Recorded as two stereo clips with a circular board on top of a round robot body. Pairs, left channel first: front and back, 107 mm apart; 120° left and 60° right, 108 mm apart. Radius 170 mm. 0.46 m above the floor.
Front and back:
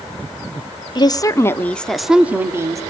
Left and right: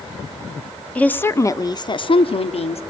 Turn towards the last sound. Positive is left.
turn(degrees=120)